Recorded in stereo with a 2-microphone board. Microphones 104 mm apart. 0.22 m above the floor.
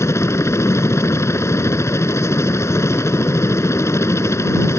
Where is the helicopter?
25° left (ahead or behind).